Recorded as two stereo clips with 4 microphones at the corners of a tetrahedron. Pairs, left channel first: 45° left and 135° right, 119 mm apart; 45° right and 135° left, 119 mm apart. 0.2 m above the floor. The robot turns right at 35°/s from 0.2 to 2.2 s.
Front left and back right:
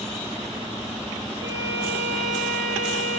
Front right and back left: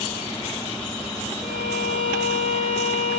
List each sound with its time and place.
1.4 s a violin: 75° right, 3 m; by 3.2 s 50° right, 3 m